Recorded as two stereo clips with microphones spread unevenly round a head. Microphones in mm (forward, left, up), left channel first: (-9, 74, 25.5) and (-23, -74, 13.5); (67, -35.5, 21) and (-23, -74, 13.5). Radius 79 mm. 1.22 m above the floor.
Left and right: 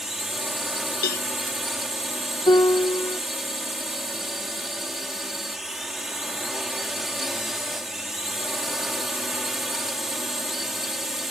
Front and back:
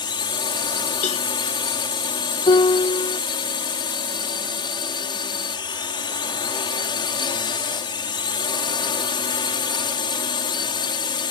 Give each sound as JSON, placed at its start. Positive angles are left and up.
{"t": 0.0, "sound": "a drone", "azimuth_deg": -5}
{"t": 1.0, "sound": "a cowbell", "azimuth_deg": 55}
{"t": 2.5, "sound": "a piano", "azimuth_deg": 20}